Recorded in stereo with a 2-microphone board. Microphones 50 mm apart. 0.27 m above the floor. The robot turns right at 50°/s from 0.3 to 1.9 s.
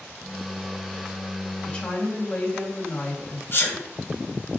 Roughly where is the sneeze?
Left.